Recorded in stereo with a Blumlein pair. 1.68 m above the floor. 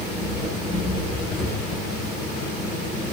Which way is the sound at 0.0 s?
25° left.